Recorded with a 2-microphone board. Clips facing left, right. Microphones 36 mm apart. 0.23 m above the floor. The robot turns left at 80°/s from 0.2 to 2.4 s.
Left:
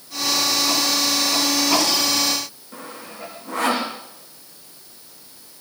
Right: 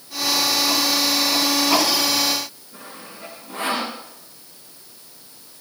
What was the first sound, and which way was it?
Sawing, 80° left.